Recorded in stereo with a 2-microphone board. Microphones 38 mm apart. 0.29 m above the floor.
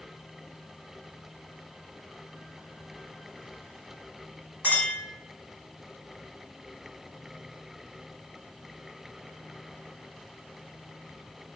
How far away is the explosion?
I don't hear an explosion.